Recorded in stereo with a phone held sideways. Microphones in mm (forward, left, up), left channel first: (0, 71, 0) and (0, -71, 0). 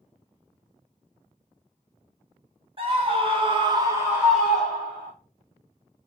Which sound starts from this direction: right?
A scream, at 2.8 s.